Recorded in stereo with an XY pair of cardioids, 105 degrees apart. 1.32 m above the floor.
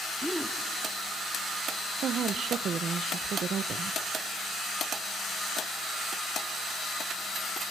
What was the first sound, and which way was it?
A gasp, 5° right.